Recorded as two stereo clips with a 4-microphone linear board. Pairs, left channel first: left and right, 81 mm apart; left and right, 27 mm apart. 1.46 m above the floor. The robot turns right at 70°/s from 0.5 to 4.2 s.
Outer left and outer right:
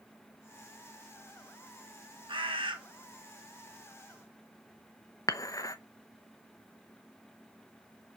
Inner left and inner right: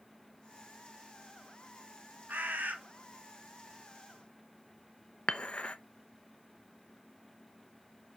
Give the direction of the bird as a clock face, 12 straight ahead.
3 o'clock.